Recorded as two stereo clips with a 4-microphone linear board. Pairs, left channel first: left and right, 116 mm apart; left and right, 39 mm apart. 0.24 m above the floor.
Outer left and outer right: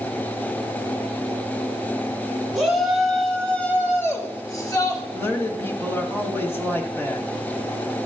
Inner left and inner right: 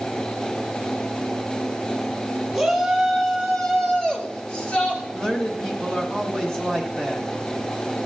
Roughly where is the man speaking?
Left.